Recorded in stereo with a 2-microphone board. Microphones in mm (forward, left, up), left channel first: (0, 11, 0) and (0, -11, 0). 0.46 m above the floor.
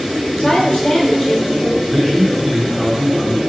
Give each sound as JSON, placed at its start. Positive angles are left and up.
{"t": 0.4, "sound": "a woman speaking", "side_deg": 40, "distance_m": 1.1}
{"t": 1.9, "sound": "a man speaking", "side_deg": -15, "distance_m": 0.8}